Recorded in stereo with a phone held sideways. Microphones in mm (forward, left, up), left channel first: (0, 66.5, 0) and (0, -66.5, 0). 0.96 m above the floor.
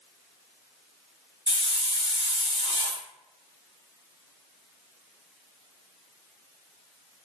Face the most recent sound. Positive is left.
turn(degrees=45)  # may be behind; listen again after turning